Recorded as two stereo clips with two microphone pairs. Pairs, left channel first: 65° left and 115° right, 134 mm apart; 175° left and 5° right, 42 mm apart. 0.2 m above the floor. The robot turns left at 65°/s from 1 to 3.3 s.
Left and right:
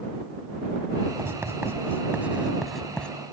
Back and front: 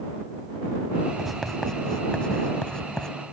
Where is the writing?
100° right; by 3.1 s 140° left.